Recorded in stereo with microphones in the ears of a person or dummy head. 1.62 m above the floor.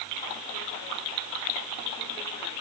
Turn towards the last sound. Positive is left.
No sound to turn to.